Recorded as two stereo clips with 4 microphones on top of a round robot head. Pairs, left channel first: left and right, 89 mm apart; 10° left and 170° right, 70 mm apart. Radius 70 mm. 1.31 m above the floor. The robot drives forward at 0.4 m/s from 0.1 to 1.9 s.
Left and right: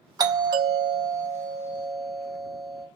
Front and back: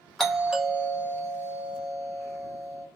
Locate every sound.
0.2 s a doorbell: 75° right, 0.8 m; by 2.9 s 135° right, 0.9 m